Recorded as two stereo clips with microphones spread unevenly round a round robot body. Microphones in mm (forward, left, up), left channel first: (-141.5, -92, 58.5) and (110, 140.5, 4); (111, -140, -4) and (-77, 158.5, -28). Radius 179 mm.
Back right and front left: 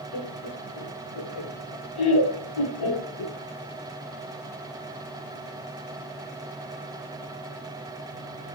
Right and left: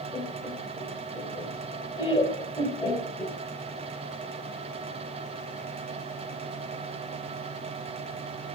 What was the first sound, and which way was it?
Laughter, 135° right.